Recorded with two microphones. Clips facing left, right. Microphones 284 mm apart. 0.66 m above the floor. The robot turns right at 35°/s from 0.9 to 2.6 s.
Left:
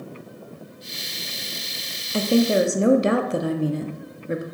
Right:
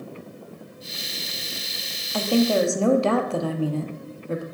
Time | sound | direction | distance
2.1 | a woman speaking | 25° left (ahead or behind) | 0.6 m